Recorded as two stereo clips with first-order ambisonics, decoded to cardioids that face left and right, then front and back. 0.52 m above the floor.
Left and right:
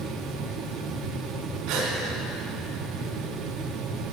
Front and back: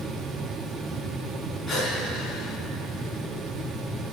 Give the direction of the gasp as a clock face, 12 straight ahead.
3 o'clock.